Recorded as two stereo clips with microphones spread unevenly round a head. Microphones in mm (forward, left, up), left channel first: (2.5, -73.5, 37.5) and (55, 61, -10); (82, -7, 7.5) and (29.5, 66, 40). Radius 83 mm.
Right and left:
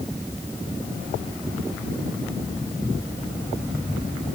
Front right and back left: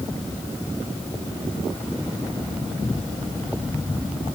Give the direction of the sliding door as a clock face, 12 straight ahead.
I don't hear a sliding door.